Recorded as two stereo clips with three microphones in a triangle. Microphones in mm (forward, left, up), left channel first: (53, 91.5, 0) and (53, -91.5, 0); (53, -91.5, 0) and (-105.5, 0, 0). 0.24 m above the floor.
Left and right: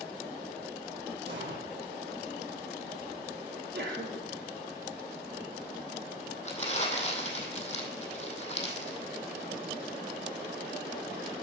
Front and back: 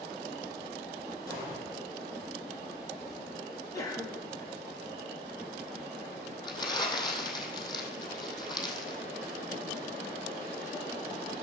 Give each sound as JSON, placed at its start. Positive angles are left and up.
{"t": 1.3, "sound": "an explosion", "azimuth_deg": -100, "distance_m": 5.5}
{"t": 3.5, "sound": "a sneeze", "azimuth_deg": -100, "distance_m": 4.5}
{"t": 6.5, "sound": "crumpling", "azimuth_deg": 35, "distance_m": 2.0}